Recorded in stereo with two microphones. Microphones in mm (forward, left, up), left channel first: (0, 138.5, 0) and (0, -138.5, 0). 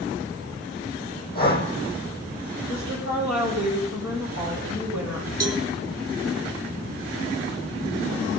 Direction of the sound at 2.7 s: 70° left (ahead or behind).